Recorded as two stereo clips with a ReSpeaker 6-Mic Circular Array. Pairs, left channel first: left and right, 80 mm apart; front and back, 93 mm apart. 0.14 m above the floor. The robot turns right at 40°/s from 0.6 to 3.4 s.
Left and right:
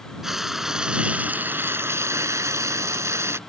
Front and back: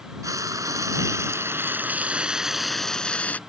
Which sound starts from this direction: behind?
Frying, at 0.2 s.